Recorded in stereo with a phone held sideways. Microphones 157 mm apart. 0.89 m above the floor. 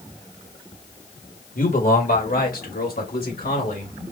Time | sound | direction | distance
1.6 | a man speaking | 60° left (ahead or behind) | 1.9 m